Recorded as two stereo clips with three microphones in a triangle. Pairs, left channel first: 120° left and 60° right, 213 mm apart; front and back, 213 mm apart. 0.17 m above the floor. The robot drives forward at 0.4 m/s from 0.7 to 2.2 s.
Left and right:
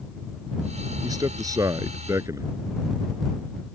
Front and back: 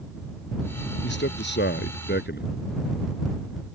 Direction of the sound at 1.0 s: 10° left.